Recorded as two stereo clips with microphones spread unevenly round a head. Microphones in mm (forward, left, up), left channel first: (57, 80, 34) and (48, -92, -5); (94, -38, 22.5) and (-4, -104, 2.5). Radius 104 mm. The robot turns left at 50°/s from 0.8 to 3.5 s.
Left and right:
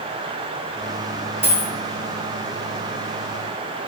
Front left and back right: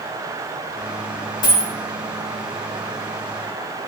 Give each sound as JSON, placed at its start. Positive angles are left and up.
{"t": 1.4, "sound": "a dropped coin", "azimuth_deg": -10, "distance_m": 2.5}